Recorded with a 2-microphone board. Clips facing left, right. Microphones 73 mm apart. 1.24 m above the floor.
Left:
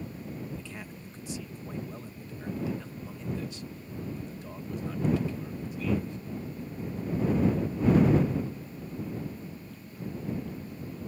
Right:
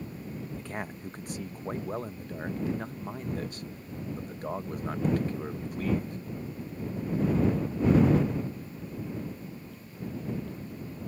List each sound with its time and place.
0.6 s a man speaking: 55° right (ahead or behind)